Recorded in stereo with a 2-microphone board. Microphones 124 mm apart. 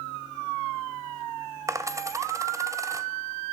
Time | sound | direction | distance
1.7 | a dropped coin | 25° right (ahead or behind) | 0.6 m